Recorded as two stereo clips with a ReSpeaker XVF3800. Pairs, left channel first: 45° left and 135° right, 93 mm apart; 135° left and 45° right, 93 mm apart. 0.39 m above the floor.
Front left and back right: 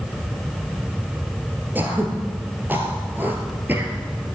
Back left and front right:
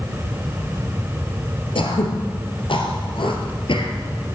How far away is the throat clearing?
About 2 m.